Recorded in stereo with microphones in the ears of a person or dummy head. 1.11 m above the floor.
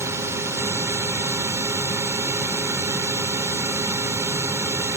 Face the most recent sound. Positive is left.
turn(degrees=-20)  # may be behind; listen again after turning